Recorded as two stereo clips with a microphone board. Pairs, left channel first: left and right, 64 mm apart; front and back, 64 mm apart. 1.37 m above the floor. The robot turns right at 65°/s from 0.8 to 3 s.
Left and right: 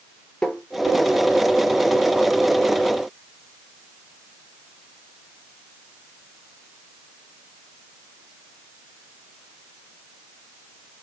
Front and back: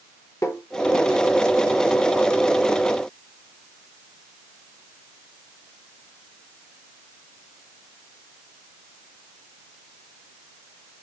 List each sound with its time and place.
0.4 s tapping: 15° left, 0.7 m